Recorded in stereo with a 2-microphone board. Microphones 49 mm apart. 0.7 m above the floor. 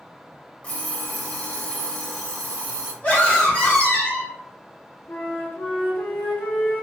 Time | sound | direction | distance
0.6 | an alarm clock | 25° left (ahead or behind) | 1.1 m
3.0 | a scream | 35° left (ahead or behind) | 1.5 m
5.1 | a flute | 40° left (ahead or behind) | 0.7 m